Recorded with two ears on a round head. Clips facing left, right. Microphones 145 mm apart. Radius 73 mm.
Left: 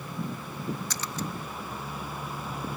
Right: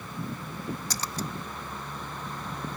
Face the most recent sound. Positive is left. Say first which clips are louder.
# even
turn(degrees=-30)  # may be behind; listen again after turning